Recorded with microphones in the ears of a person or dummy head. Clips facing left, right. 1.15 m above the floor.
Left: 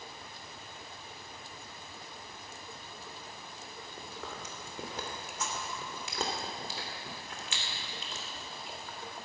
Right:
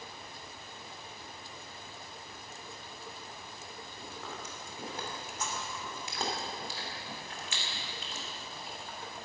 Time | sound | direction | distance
4.0 | chewing | 75° left (ahead or behind) | 3 m